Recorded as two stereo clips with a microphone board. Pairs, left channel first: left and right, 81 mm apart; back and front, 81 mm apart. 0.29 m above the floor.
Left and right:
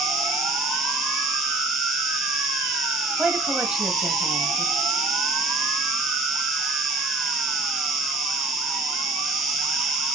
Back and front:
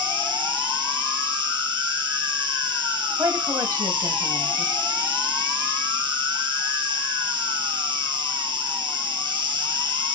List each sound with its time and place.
0.0 s an insect: straight ahead, 1.5 m
3.2 s a woman speaking: 15° right, 1.2 m